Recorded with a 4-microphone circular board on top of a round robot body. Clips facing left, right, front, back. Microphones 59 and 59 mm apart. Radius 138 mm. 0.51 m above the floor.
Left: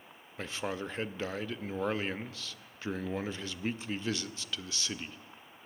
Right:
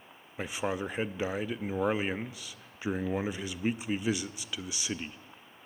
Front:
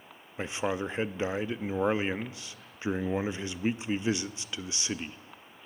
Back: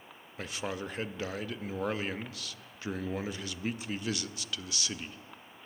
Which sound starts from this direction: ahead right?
A man speaking, at 0.4 s.